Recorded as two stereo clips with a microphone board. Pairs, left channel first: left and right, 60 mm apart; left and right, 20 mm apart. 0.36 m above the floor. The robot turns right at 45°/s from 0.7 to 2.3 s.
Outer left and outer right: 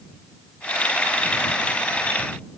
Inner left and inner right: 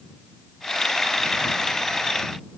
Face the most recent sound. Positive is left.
No sound to turn to.